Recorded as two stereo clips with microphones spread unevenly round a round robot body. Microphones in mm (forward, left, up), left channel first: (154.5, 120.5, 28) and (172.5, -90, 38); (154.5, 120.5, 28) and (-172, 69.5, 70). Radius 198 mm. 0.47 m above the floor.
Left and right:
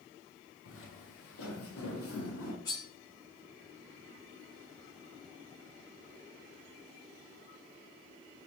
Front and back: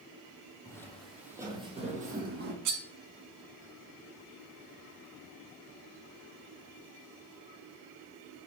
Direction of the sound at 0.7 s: 90° left.